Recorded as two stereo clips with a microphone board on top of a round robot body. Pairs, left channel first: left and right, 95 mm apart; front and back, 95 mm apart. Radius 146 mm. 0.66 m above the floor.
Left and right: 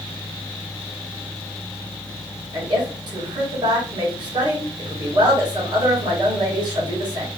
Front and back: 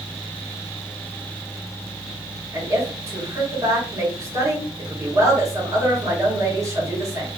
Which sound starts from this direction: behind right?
A woman speaking, at 2.5 s.